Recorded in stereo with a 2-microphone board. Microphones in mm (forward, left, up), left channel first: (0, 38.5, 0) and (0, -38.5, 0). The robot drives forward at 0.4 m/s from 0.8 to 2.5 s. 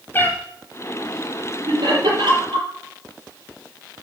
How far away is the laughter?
About 5.5 m.